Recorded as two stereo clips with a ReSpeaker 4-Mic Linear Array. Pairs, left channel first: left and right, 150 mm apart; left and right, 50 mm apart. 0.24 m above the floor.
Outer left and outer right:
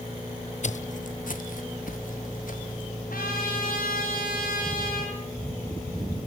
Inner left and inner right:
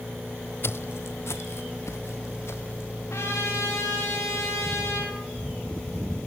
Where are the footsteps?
55° left (ahead or behind), 0.6 m; by 2.9 s 70° left (ahead or behind), 3 m.